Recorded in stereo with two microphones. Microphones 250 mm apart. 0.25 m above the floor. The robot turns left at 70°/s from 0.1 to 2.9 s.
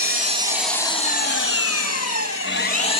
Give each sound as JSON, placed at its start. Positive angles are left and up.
{"t": 0.0, "sound": "an engine running", "azimuth_deg": -140, "distance_m": 2.0}